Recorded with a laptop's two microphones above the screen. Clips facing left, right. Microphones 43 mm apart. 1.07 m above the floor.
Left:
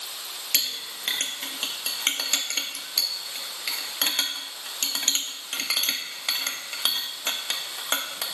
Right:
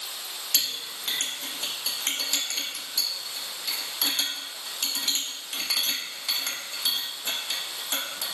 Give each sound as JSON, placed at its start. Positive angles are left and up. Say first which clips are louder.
{"t": 0.5, "sound": "a clink", "louder": "left 1 dB", "side_deg": 75, "distance_m": 0.6}